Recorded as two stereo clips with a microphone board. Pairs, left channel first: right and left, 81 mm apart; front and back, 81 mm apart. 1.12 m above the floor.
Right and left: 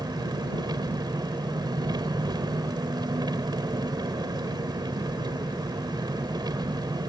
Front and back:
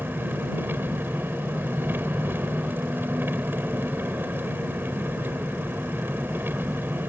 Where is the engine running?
115° left.